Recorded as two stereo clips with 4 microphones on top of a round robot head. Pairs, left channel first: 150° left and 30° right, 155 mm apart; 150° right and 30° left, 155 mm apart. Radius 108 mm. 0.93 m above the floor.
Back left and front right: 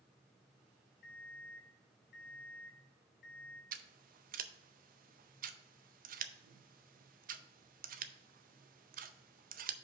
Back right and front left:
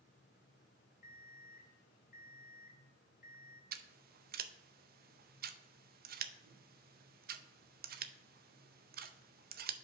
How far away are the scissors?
About 0.6 m.